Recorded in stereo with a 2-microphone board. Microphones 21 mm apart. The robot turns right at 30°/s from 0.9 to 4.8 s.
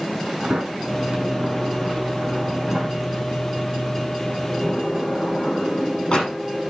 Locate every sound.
0.4 s a sliding door: 70° right (ahead or behind), 7 m; by 6.4 s 45° left (ahead or behind), 7 m